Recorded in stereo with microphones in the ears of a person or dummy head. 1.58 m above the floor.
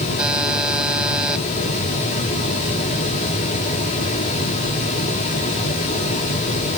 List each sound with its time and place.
0.2 s a buzzer: 5° right (ahead or behind)